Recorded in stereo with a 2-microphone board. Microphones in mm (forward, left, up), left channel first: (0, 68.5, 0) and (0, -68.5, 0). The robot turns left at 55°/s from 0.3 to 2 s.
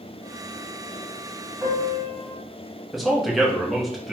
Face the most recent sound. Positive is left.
turn(degrees=0)  # may be behind; listen again after turning